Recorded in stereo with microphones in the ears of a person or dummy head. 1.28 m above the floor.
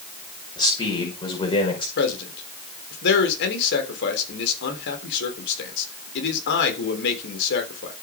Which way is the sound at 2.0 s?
65° left (ahead or behind).